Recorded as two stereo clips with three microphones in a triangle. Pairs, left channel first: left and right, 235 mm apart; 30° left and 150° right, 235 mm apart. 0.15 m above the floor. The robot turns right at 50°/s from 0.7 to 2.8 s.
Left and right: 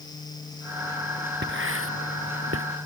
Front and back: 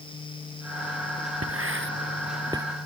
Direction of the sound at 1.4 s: 135° right.